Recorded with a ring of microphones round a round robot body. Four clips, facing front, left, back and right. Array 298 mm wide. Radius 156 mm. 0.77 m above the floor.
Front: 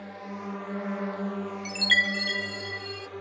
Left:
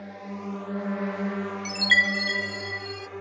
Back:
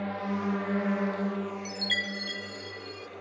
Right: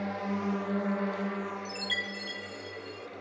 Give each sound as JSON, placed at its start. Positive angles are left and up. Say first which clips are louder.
{"t": 0.0, "sound": "a drone", "louder": "right 4 dB, back 7 dB", "azimuth_deg": -150}
{"t": 1.6, "sound": "a chime", "louder": "left 11 dB, front 6 dB", "azimuth_deg": 55}